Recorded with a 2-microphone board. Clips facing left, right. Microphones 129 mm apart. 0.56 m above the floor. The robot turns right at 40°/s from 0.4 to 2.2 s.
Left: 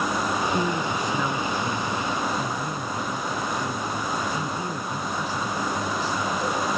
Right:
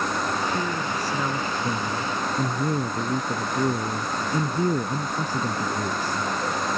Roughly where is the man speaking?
Behind.